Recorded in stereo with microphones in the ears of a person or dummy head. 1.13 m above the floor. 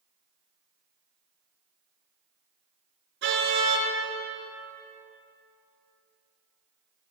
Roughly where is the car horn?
Right.